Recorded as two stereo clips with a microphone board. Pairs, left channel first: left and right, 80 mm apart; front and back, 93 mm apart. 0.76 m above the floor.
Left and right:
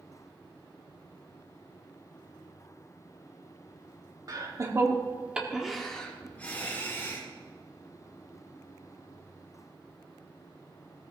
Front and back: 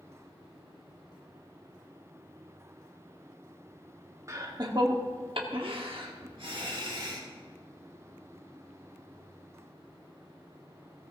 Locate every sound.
4.3 s laughter: 125° right, 1.6 m; by 7.2 s 150° left, 2.5 m